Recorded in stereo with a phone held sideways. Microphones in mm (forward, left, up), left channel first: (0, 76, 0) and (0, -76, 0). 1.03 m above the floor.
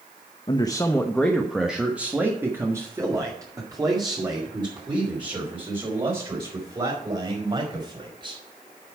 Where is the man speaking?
35° left (ahead or behind), 0.7 m; by 8.4 s 35° right (ahead or behind), 4.5 m.